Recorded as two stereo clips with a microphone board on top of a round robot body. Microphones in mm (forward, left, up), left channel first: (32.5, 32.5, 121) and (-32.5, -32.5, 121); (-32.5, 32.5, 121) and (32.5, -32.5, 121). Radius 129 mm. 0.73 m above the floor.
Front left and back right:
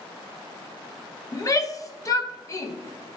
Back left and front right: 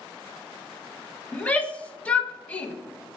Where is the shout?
65° left, 0.7 m.